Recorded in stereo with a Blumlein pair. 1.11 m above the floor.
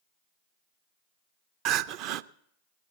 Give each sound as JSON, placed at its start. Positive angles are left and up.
{"t": 1.6, "sound": "crying", "azimuth_deg": -40, "distance_m": 0.5}